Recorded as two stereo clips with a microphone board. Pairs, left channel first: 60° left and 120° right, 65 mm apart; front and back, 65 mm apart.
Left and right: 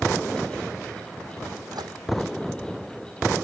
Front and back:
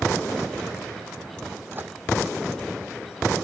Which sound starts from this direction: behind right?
A microwave, at 1.7 s.